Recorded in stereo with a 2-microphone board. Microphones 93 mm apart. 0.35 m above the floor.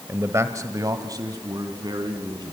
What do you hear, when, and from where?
0.1 s a man speaking: 25° right (ahead or behind), 1.1 m; by 2.5 s 45° right (ahead or behind), 3 m